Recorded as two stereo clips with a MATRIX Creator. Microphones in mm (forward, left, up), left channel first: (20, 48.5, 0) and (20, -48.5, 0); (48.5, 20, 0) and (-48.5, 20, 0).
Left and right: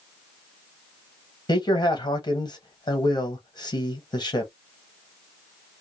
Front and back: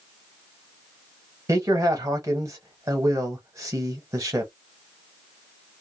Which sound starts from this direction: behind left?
A man speaking, at 1.5 s.